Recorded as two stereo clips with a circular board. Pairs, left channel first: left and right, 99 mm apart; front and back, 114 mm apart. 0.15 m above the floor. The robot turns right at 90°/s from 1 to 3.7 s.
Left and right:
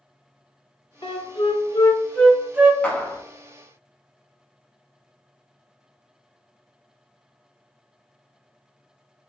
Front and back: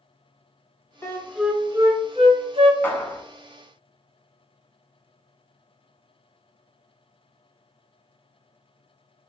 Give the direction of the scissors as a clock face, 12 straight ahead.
I don't hear scissors.